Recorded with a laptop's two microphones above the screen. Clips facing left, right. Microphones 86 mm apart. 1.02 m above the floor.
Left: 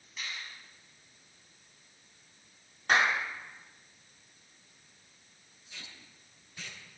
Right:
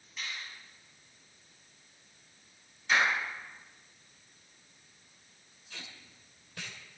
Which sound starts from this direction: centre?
A finger snap, at 0.2 s.